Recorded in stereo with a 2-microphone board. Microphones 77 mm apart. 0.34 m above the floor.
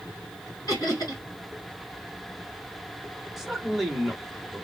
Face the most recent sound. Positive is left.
turn(degrees=0)  # may be behind; listen again after turning